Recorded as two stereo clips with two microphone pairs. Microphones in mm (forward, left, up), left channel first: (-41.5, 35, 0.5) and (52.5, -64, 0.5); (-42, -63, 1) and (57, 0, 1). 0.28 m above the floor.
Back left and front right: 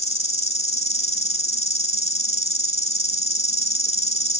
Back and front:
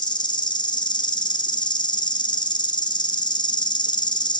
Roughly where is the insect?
Behind.